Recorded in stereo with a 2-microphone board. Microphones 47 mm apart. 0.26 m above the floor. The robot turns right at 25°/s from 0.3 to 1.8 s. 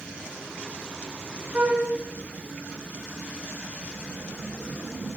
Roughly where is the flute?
Right.